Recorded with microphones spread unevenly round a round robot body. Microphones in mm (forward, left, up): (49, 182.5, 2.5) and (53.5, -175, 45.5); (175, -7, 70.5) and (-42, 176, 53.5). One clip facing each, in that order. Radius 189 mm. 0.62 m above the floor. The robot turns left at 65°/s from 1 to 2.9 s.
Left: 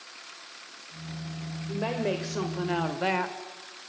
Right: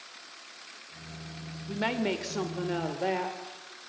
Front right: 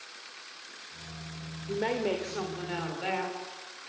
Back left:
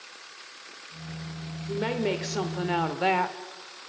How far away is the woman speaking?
About 2.5 m.